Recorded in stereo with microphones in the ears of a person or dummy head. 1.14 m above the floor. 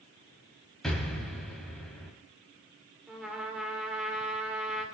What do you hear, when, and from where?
0.8 s an explosion: centre (ahead or behind), 2.5 m
3.1 s a trumpet: 5° right (ahead or behind), 1.9 m